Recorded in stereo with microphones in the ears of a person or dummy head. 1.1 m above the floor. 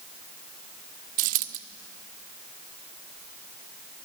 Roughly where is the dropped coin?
Right.